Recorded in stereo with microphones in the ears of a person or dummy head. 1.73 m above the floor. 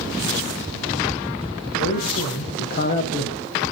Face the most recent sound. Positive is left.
turn(degrees=20)  # may be behind; listen again after turning